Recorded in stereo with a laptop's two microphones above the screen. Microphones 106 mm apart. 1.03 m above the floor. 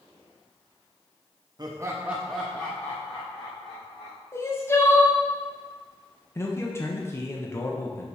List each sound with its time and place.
1.6 s laughter: 40° right (ahead or behind), 0.6 m; by 4.2 s 45° left (ahead or behind), 1.4 m
4.3 s crying: 25° left (ahead or behind), 0.6 m
6.3 s a man speaking: 25° left (ahead or behind), 0.8 m